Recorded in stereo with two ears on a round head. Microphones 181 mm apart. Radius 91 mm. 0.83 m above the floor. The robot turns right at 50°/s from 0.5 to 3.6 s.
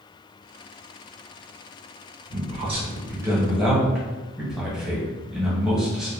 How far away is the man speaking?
About 0.9 m.